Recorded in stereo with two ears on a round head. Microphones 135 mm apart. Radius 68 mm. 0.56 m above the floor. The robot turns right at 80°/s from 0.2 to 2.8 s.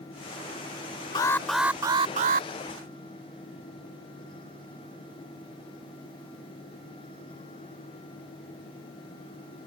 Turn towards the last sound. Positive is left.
turn(degrees=-80)